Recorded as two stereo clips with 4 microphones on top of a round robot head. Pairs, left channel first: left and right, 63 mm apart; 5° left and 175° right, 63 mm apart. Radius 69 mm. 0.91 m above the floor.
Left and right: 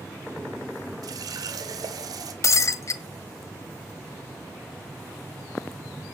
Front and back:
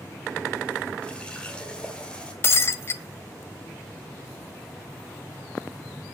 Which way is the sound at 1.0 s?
75° right.